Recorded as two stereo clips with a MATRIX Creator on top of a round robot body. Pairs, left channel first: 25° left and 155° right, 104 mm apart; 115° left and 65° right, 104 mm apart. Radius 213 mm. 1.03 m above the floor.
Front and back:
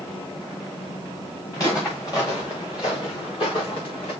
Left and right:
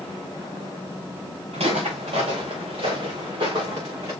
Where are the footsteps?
40° right, 5 m; by 4.1 s 10° right, 5 m.